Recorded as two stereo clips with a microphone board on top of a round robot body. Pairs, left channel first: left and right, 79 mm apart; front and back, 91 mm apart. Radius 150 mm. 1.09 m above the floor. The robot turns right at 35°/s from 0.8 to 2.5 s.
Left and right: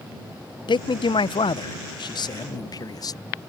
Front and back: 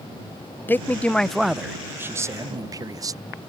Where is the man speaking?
70° left; by 3.2 s 130° left.